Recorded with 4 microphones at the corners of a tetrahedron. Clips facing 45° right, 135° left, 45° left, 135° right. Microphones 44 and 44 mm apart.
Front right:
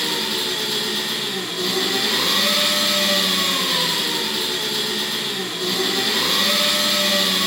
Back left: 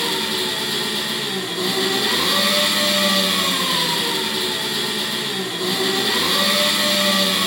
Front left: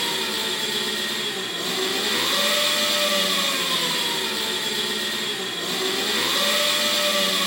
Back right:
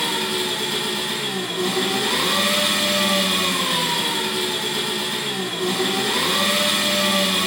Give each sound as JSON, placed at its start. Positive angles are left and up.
{"t": 0.0, "sound": "an engine running", "azimuth_deg": -140, "distance_m": 2.5}